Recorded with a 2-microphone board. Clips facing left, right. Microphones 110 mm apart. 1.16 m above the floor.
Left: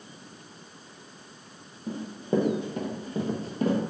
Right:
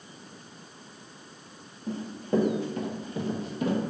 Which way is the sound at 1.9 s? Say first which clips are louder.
Even; 15° left (ahead or behind).